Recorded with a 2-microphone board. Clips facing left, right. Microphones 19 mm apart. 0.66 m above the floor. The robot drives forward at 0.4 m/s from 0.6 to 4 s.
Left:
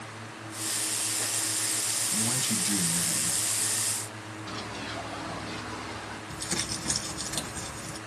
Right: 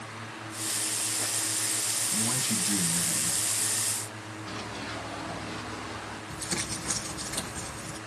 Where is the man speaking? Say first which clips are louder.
Even; 55° left (ahead or behind), 3.5 m; by 4.4 s 45° left (ahead or behind), 4 m.